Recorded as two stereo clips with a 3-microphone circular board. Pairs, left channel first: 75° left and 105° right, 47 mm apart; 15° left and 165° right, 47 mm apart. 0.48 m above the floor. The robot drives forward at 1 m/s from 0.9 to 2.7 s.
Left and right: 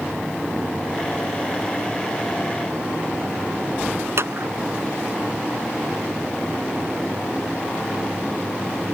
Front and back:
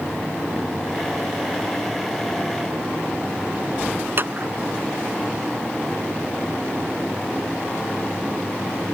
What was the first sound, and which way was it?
A clap, 125° right.